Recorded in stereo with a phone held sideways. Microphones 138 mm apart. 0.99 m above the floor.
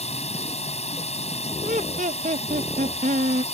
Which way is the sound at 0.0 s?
50° left (ahead or behind).